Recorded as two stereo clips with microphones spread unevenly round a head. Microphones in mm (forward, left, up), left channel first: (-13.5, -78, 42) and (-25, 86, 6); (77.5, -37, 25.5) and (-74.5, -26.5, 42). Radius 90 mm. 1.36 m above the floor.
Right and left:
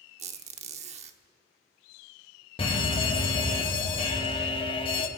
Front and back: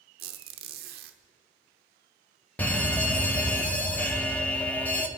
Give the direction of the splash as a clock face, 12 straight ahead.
I don't hear a splash.